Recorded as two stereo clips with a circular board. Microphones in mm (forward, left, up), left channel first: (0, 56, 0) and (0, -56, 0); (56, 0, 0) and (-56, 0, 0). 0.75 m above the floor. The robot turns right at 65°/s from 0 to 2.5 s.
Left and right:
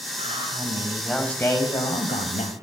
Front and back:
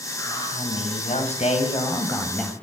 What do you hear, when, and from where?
0.2 s a man speaking: 60° right, 4.5 m; by 2.5 s 90° left, 4.5 m